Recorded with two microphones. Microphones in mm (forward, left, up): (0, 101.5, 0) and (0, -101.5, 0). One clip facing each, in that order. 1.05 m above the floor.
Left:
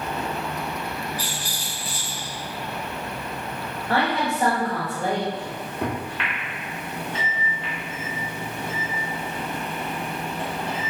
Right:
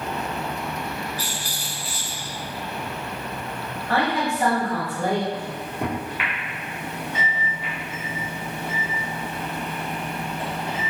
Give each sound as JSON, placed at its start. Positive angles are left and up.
{"t": 1.2, "sound": "a rattle", "side_deg": 50, "distance_m": 1.5}
{"t": 3.9, "sound": "a woman speaking", "side_deg": 20, "distance_m": 1.9}
{"t": 5.3, "sound": "a microwave", "side_deg": -10, "distance_m": 1.1}